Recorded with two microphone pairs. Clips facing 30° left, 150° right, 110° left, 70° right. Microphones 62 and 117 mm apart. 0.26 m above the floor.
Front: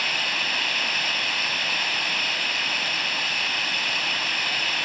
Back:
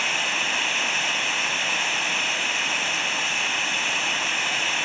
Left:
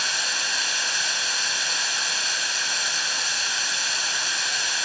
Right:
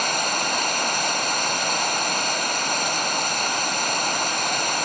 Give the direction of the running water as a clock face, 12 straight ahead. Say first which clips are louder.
Back 1 dB, right 8 dB; 2 o'clock.